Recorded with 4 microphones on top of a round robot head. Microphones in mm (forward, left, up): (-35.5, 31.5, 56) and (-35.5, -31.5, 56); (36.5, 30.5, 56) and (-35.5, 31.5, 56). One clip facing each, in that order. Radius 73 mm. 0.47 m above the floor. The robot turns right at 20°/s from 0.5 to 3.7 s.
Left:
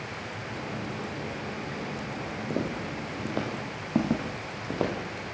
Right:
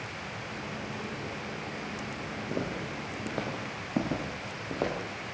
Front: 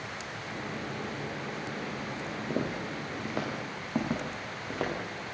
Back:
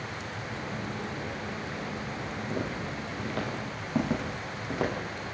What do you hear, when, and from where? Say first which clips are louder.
2.5 s footsteps: left 3 dB, front 2 dB; 50° left, 9 m; by 4.9 s 95° left, 10 m